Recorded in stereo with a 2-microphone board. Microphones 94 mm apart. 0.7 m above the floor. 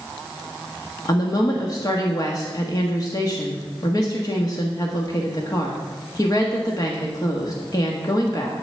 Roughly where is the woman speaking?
Left.